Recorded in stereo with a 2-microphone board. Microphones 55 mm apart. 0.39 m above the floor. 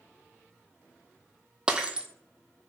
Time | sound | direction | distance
1.7 | breaking glass | 15° right (ahead or behind) | 0.6 m